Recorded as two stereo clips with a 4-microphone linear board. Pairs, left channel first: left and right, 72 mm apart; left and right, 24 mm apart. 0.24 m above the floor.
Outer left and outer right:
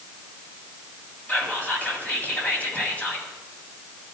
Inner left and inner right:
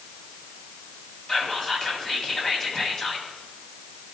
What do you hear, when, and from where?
1.3 s whispering: 25° left (ahead or behind), 1.6 m